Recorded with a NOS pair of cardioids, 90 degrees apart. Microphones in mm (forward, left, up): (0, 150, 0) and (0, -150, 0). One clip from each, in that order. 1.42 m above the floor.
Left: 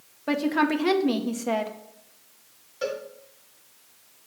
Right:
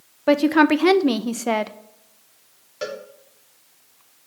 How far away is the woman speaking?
About 0.5 m.